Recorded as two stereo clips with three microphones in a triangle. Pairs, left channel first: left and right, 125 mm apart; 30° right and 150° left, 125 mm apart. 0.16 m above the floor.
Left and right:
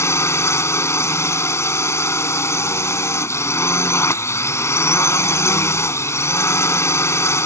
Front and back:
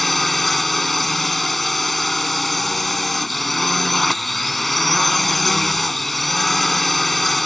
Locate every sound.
0.0 s a drone: 55° left